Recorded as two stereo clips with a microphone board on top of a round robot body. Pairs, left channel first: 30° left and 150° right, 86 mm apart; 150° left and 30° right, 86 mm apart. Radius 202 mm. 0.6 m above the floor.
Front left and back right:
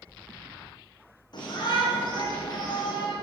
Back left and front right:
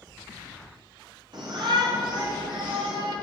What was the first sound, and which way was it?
A shout, straight ahead.